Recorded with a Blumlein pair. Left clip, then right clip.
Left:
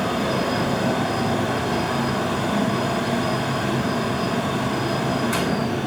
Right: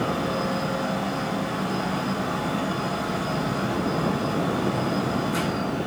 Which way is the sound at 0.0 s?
45° left.